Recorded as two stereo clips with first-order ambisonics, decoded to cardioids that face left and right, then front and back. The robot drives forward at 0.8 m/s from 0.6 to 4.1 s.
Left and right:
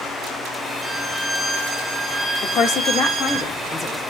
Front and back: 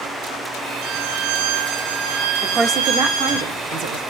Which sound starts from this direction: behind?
A violin, at 0.8 s.